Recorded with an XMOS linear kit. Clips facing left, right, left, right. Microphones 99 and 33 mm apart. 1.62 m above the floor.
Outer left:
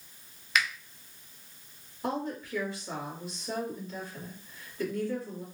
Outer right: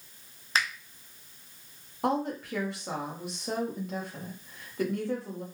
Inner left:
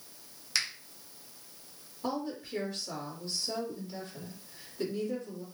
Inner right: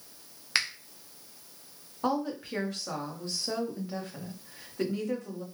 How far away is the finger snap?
About 0.6 m.